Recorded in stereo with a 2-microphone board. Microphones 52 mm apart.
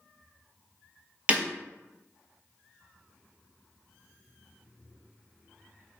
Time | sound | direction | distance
1.3 | breaking glass | 30° right (ahead or behind) | 0.6 m